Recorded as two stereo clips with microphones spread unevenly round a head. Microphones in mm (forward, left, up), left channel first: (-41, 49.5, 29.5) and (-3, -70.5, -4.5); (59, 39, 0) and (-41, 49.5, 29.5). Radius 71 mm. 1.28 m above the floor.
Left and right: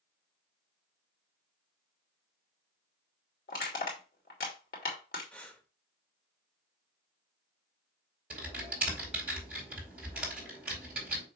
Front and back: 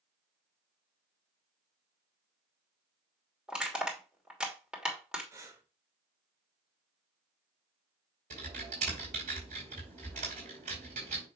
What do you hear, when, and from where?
3.5 s crushing: 95° left, 3 m
5.3 s breathing: 165° left, 1.2 m
8.3 s typing on a keyboard: 155° right, 4 m